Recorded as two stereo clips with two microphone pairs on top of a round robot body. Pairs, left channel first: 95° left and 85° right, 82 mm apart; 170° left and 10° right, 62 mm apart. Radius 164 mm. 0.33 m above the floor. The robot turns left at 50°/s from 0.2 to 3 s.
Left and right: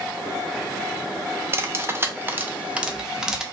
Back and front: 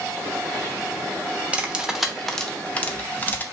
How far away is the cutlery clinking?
About 0.7 m.